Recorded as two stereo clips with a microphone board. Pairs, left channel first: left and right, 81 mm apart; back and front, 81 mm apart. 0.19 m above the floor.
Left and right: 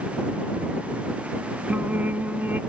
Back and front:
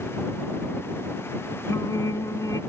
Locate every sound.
1.7 s singing: 150° right